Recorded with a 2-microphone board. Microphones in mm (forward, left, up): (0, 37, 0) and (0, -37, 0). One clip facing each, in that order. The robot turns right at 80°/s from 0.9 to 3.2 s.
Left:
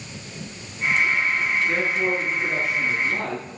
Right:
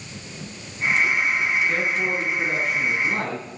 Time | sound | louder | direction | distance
1.7 | a man speaking | left 1 dB | 130° left | 5.5 m